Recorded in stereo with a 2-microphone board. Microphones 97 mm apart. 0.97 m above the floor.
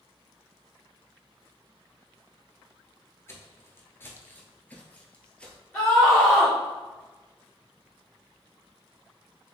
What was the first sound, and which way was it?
Footsteps, 25° left (ahead or behind).